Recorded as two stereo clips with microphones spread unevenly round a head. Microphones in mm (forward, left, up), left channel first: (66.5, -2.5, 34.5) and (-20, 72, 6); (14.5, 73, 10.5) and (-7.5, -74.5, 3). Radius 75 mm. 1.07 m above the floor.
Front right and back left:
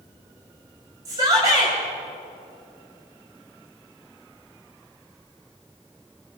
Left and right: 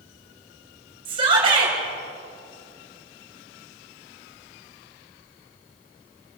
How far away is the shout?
About 6.5 m.